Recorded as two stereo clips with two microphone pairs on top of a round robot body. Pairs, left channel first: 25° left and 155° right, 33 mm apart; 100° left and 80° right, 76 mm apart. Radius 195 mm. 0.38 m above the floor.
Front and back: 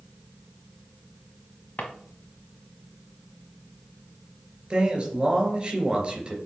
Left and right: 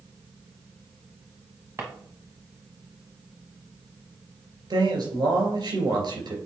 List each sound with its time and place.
1.8 s a drawer: 20° right, 1.0 m
4.7 s a man speaking: 95° right, 3 m